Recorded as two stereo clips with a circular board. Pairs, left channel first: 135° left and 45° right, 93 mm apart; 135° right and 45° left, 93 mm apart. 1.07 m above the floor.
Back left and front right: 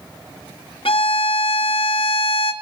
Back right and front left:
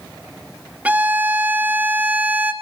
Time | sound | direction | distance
0.8 | a violin | 120° left | 1.2 m